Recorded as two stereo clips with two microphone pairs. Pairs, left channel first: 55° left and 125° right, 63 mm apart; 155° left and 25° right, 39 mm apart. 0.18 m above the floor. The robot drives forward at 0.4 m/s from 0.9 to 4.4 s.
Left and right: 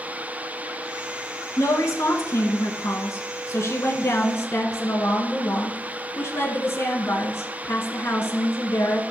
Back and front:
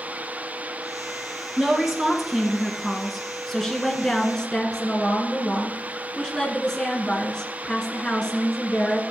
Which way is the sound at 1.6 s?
50° left.